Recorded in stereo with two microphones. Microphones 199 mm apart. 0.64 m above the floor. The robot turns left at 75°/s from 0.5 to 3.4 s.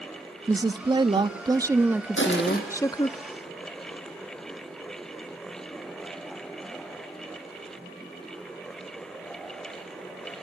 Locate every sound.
0.5 s a woman speaking: 20° right (ahead or behind), 0.6 m; by 3.2 s 20° left (ahead or behind), 0.6 m
2.2 s crushing: 80° left, 4.5 m; by 2.6 s 45° left, 4.5 m